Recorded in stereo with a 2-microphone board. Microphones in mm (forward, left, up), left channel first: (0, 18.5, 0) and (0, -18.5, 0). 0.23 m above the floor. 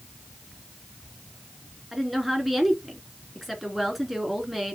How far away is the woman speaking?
About 3 m.